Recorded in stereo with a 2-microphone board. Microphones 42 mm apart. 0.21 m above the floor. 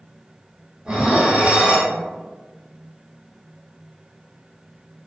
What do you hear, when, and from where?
0.8 s dishes clattering: 20° right (ahead or behind), 0.9 m